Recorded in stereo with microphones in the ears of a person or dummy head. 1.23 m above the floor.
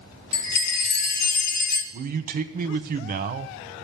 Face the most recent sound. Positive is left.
turn(degrees=-40)  # may be behind; listen again after turning